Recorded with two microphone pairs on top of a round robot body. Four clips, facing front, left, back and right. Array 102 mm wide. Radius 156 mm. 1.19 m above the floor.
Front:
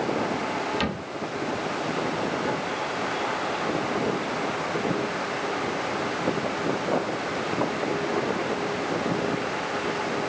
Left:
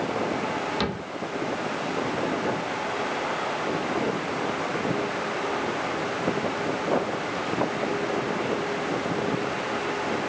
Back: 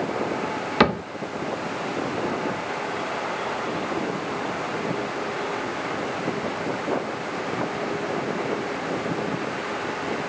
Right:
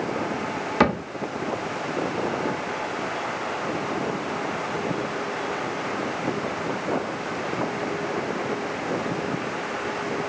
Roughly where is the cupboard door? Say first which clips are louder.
Right 8 dB, back 9 dB; behind right.